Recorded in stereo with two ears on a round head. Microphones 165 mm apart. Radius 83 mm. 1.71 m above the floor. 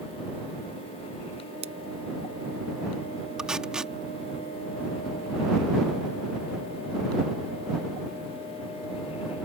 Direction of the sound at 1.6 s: 35° right (ahead or behind).